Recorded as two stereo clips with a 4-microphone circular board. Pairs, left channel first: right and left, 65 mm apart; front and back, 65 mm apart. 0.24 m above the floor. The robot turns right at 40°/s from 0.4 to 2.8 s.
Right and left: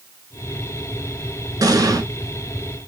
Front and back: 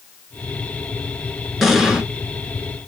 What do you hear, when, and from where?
1.6 s an explosion: 90° left, 0.8 m; by 2.0 s 105° left, 0.8 m